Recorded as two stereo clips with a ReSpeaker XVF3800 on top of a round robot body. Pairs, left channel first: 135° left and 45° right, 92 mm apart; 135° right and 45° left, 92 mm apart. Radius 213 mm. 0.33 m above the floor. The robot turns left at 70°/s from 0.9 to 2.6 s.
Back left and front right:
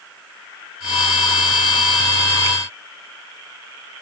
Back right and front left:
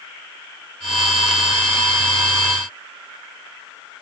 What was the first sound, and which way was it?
Only background noise.